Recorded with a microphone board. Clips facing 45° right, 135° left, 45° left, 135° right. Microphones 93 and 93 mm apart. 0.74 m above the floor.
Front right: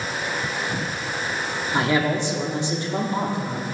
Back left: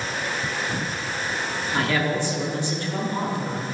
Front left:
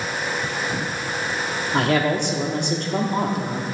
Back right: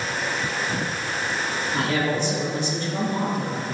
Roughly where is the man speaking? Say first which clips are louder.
Front right 3 dB, front left 5 dB; ahead left.